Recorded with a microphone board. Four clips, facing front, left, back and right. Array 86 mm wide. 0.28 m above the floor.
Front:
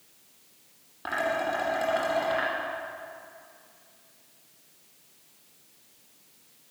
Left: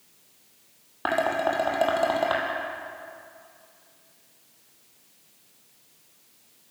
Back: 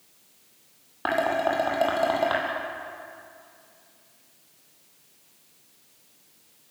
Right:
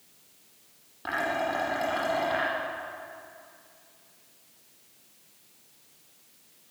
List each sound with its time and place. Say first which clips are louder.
1.1 s dishes clattering: left 5 dB, back 4 dB; 125° left, 7 m